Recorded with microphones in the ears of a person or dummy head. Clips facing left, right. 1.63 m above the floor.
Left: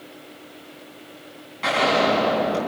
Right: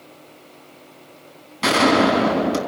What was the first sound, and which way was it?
A gunshot, 60° right (ahead or behind).